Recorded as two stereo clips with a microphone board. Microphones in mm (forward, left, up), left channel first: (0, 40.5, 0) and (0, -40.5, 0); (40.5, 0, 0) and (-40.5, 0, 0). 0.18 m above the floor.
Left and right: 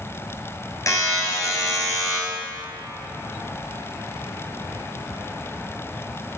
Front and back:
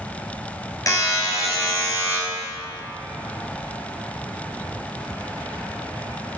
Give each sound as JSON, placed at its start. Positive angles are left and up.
{"t": 0.9, "sound": "a buzzer", "azimuth_deg": 45, "distance_m": 1.5}